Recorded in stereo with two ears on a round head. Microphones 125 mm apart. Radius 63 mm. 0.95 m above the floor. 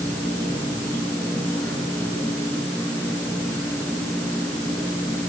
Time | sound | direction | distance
0.0 | an insect | 15° left (ahead or behind) | 7.5 m